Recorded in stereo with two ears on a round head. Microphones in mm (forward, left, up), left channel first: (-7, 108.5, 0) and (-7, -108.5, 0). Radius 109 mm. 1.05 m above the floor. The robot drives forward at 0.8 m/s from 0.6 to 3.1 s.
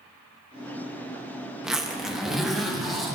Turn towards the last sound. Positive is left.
turn(degrees=0)  # may be behind; listen again after turning